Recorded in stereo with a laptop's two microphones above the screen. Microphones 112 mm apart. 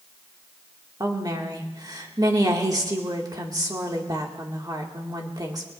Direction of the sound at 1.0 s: 35° right (ahead or behind).